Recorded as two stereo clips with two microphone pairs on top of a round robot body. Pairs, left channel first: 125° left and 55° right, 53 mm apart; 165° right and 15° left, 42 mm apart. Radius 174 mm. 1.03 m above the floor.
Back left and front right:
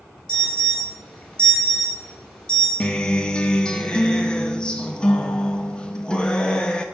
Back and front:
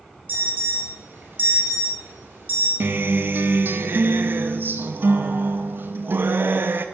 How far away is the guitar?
About 0.9 m.